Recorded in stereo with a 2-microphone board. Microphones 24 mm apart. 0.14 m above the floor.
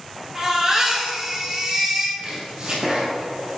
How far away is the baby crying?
About 1.9 m.